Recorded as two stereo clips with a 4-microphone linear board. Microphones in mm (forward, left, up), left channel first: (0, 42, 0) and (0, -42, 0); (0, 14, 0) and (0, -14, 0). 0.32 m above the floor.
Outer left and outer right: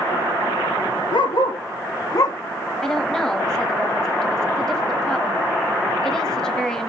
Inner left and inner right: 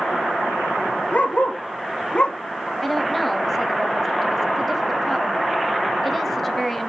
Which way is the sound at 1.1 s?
75° left (ahead or behind).